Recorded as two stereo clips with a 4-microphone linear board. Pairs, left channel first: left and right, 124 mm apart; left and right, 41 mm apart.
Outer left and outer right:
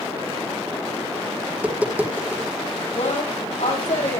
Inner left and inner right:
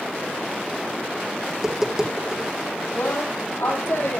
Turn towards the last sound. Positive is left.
turn(degrees=75)  # may be behind; listen again after turning